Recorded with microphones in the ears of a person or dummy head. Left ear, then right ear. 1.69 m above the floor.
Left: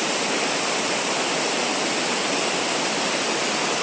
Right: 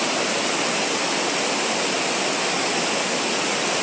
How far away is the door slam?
I don't hear a door slam.